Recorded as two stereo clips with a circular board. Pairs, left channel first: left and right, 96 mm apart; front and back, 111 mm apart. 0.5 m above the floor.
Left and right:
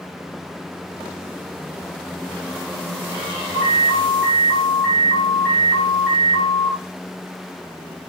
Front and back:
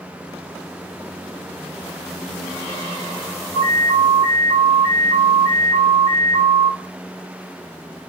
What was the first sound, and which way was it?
An alarm, 5° right.